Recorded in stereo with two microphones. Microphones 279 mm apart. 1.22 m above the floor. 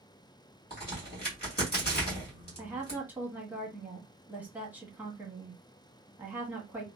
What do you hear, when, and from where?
0.7 s a crack: 30° left (ahead or behind), 1.5 m
2.6 s a woman speaking: 5° right (ahead or behind), 1.0 m